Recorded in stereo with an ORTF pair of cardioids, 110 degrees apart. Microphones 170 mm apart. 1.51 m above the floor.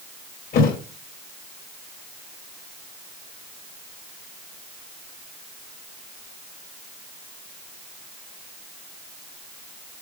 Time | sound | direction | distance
0.5 | a thud | 70° left | 3.5 m